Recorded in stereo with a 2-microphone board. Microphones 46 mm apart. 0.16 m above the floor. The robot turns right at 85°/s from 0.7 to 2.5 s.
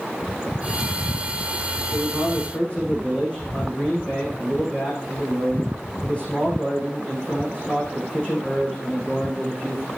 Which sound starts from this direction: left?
A man speaking, at 1.9 s.